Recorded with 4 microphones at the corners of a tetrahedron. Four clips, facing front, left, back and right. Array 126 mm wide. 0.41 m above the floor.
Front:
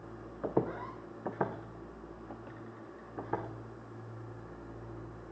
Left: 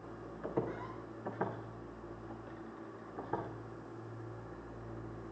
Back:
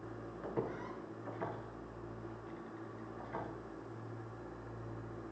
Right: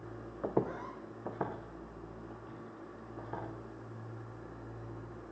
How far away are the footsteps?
About 1.2 m.